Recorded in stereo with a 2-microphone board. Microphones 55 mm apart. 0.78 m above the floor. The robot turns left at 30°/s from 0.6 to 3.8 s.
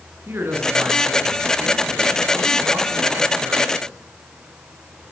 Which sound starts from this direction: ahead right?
A man speaking, at 0.3 s.